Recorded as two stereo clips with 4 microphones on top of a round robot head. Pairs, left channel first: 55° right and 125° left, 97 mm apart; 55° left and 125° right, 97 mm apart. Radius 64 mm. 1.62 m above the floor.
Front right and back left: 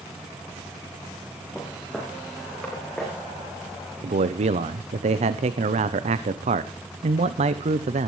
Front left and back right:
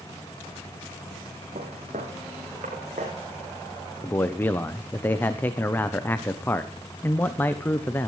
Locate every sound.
1.6 s footsteps: 150° right, 5.5 m; by 3.1 s 145° right, 6.5 m
4.0 s a man speaking: 130° left, 0.8 m